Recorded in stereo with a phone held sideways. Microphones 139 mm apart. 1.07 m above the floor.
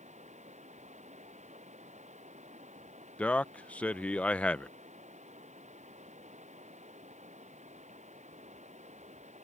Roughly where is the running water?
Right.